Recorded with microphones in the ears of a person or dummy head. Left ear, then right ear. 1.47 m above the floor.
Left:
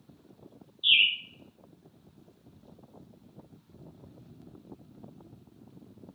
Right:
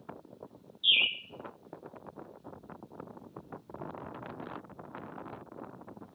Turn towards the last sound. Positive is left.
turn(degrees=15)  # may be behind; listen again after turning